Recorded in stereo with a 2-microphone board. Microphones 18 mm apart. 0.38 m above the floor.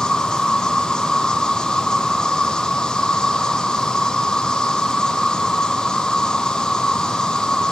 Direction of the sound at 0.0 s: 45° left (ahead or behind).